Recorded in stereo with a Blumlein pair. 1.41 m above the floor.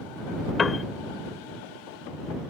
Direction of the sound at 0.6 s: 20° left.